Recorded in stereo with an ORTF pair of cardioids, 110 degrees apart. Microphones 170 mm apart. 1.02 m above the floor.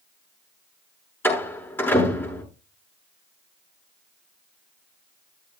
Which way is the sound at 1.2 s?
15° left.